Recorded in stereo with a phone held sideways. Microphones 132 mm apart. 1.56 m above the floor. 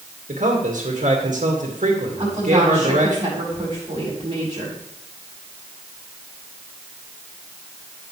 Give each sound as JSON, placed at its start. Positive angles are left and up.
{"t": 0.3, "sound": "a man speaking", "side_deg": -80, "distance_m": 2.0}
{"t": 2.2, "sound": "a woman speaking", "side_deg": -35, "distance_m": 5.5}